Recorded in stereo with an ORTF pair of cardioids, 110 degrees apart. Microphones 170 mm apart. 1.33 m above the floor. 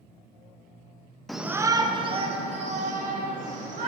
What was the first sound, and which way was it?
A shout, straight ahead.